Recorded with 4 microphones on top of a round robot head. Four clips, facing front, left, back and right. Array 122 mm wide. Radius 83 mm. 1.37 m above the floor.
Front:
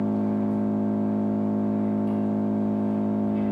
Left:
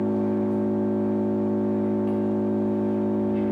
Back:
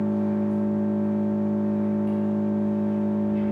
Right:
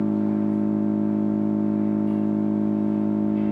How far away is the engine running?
About 3 m.